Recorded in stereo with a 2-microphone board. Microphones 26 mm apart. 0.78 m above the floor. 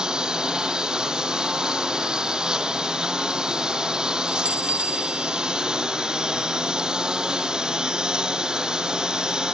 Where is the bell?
45° right (ahead or behind).